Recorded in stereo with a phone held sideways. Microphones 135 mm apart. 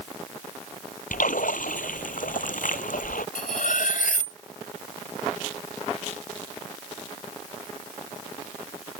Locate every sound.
1.1 s a splash: 75° left (ahead or behind)
3.4 s cutlery clinking: 75° left (ahead or behind)